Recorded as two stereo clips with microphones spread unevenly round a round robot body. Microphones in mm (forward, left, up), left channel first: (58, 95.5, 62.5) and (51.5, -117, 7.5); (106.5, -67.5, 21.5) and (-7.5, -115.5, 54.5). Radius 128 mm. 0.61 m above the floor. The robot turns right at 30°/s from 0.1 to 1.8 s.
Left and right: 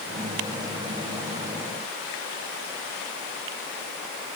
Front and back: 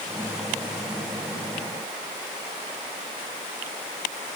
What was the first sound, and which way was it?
Only background noise.